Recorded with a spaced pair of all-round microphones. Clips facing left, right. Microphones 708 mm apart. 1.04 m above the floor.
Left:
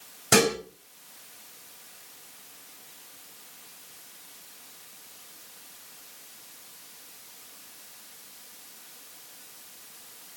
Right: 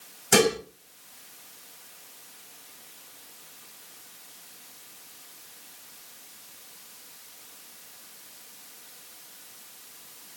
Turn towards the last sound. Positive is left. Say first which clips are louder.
# right 1 dB
turn(degrees=85)